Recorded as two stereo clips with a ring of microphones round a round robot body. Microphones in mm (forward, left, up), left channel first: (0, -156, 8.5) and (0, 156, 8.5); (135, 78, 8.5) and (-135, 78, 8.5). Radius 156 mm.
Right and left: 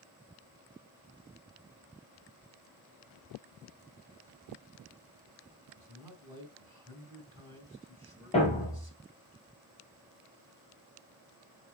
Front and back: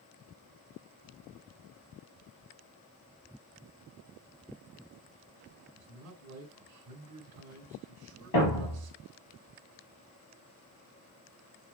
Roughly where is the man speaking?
Behind.